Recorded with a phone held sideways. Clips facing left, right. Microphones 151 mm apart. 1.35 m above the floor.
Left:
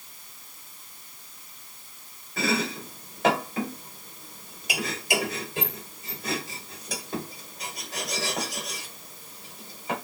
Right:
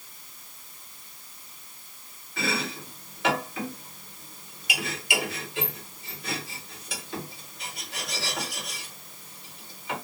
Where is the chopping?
40° left (ahead or behind), 1.5 m.